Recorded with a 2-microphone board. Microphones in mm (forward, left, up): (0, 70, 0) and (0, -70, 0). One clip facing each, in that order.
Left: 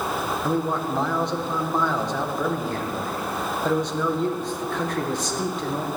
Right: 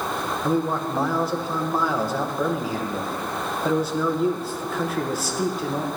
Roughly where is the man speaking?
Centre.